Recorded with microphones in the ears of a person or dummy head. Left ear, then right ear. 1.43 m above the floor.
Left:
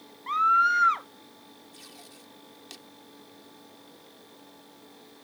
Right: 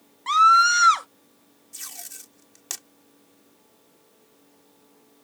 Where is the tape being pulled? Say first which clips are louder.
Right 11 dB; 50° right (ahead or behind).